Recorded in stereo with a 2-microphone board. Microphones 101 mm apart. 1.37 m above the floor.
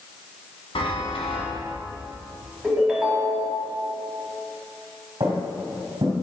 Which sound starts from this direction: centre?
A ringtone, at 2.6 s.